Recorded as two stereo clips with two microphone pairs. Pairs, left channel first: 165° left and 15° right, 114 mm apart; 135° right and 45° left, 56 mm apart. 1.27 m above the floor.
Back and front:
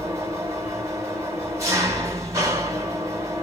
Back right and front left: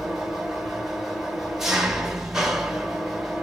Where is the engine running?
30° right, 1.0 m.